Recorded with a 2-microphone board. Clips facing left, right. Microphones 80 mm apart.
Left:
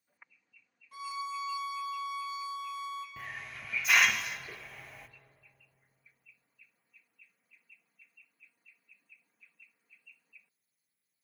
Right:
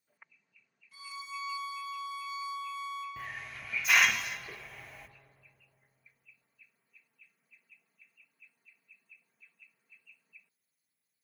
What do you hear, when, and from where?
0.9 s a violin: 55° left (ahead or behind), 1.7 m
3.2 s a hiss: 5° right (ahead or behind), 0.5 m